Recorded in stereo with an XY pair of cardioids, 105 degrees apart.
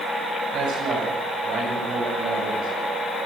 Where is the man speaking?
70° right, 9.5 m.